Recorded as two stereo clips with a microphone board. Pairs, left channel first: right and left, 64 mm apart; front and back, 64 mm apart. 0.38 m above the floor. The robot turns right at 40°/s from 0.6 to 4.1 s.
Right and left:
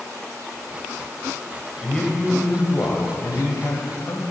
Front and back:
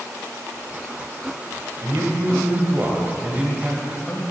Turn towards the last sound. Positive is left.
turn(degrees=-80)